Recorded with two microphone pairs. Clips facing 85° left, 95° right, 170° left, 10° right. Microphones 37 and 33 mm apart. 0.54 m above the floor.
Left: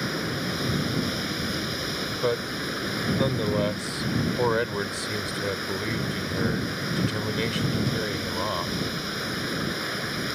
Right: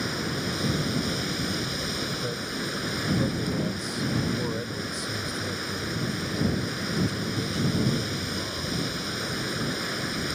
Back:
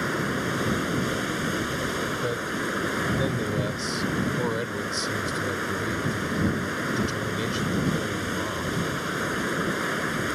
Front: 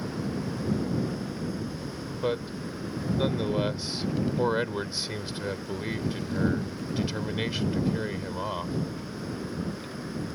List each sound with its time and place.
0.0 s running water: 165° left
2.2 s a man speaking: 60° left